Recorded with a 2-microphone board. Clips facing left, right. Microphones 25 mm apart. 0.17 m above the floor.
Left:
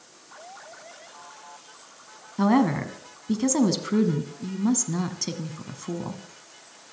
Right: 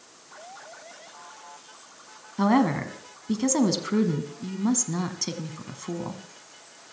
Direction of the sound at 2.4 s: 5° right (ahead or behind).